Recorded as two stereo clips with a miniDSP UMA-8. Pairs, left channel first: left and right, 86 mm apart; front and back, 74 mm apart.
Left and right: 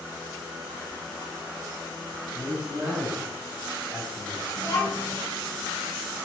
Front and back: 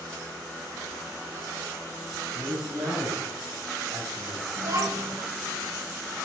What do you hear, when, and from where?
2.3 s a man speaking: straight behind, 5.5 m; by 4.5 s 170° left, 6 m
4.6 s a child speaking: 145° left, 5.5 m